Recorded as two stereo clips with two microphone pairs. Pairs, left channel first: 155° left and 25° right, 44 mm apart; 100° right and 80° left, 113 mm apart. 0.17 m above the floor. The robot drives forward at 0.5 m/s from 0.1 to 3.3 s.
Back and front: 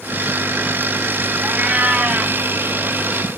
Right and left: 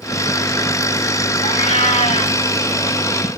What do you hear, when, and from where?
1.4 s a cat meowing: 85° right, 2.5 m; by 2.4 s 95° right, 2.5 m